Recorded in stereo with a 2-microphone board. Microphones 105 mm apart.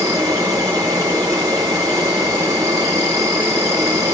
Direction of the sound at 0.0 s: 35° right (ahead or behind).